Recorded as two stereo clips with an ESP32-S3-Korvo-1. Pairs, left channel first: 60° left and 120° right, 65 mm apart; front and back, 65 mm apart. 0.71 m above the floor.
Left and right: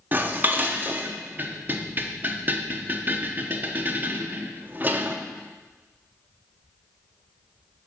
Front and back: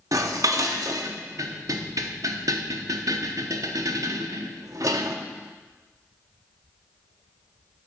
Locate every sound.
0.1 s dishes clattering: 175° right, 0.7 m